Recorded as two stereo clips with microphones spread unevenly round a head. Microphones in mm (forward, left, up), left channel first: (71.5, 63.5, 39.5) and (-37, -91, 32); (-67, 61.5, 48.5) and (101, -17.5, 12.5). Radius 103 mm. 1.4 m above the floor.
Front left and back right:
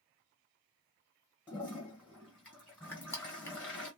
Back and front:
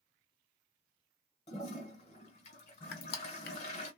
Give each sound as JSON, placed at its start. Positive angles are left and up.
{"t": 1.5, "sound": "a toilet flushing", "azimuth_deg": 135, "distance_m": 1.5}
{"t": 2.9, "sound": "crushing", "azimuth_deg": 135, "distance_m": 0.8}